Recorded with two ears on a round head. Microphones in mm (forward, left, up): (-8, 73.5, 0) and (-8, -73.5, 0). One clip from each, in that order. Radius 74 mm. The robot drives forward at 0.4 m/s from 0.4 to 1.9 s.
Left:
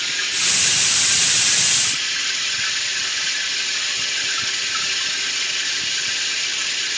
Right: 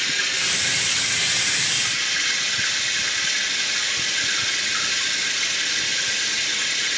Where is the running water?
80° left, 7.5 m; by 7.0 s 75° left (ahead or behind), 7.5 m.